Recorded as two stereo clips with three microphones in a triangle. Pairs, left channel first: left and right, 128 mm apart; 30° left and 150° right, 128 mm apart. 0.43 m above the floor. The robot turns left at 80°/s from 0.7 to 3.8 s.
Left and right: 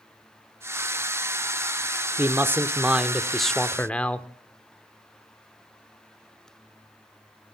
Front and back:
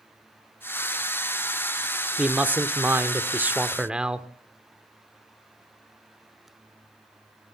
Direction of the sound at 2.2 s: 85° right.